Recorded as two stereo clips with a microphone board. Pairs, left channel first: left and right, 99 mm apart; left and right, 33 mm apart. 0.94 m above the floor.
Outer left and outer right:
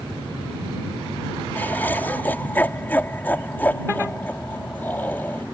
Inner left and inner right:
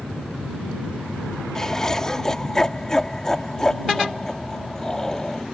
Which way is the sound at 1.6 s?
20° left (ahead or behind).